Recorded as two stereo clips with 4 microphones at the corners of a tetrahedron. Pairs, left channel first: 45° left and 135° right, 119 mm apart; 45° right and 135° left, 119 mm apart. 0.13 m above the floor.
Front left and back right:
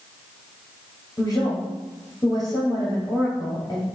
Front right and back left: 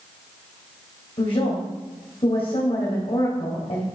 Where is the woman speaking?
15° right, 2.5 m.